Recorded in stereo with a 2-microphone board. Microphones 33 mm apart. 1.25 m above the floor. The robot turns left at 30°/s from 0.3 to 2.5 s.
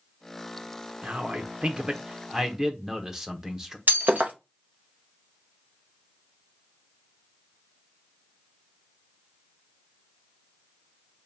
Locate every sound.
1.0 s a man speaking: 115° right, 0.8 m; by 3.8 s 160° right, 0.8 m
3.9 s breaking glass: 65° right (ahead or behind), 0.8 m